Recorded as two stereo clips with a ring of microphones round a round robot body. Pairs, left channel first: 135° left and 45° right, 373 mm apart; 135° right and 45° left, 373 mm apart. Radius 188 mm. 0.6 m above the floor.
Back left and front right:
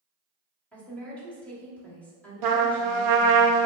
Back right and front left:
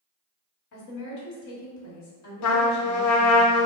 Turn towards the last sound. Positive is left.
turn(degrees=-80)